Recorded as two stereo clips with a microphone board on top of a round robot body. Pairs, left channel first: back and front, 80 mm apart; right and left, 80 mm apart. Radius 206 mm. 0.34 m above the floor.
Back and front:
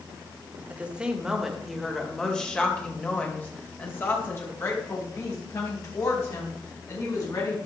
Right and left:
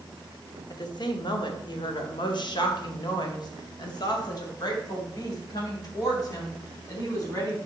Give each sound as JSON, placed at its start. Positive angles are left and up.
{"t": 0.7, "sound": "a woman speaking", "azimuth_deg": -75, "distance_m": 1.9}